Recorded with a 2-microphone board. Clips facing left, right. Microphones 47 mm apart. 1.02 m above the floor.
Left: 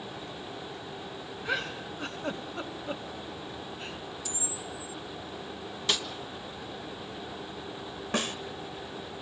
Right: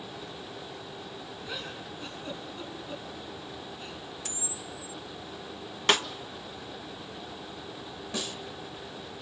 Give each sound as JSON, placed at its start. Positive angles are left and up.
{"t": 1.4, "sound": "a giggle", "side_deg": 80, "distance_m": 2.0}
{"t": 4.2, "sound": "a camera shutter", "side_deg": -80, "distance_m": 2.0}
{"t": 5.9, "sound": "a snare drum", "side_deg": -50, "distance_m": 1.2}
{"t": 8.1, "sound": "a snare drum", "side_deg": 55, "distance_m": 1.3}